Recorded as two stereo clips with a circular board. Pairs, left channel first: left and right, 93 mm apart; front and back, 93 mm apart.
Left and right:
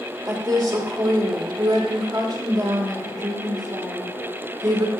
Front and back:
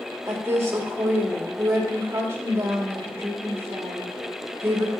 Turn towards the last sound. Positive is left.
turn(degrees=-125)